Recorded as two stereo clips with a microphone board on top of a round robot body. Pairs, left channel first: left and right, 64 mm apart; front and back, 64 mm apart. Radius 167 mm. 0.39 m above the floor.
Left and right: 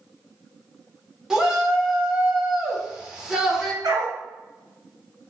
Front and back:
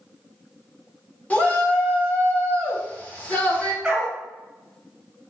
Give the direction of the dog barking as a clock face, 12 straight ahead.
3 o'clock.